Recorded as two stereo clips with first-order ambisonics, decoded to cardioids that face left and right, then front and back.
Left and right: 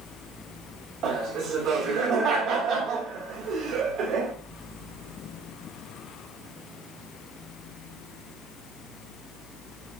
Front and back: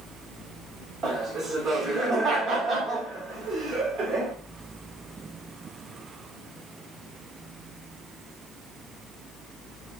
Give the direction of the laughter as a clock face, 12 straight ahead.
4 o'clock.